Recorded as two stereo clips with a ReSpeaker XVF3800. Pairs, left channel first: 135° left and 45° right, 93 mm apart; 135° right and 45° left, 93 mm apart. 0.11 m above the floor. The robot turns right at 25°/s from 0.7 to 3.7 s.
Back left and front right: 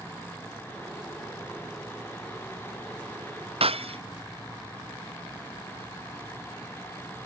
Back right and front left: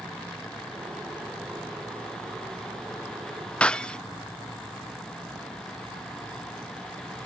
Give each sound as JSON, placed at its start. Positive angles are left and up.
{"t": 3.6, "sound": "breaking glass", "azimuth_deg": -60}